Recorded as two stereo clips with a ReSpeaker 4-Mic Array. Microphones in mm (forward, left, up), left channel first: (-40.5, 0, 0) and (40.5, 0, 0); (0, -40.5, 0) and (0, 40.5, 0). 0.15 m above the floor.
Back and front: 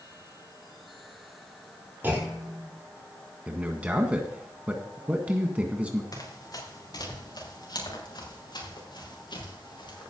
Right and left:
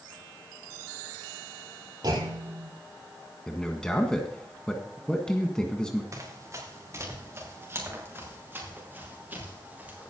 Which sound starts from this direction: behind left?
Running footsteps, at 6.1 s.